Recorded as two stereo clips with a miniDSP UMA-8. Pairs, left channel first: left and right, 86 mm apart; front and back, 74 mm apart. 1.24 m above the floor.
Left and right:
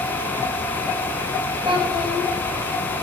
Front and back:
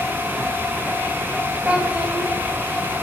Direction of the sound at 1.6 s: 110° right.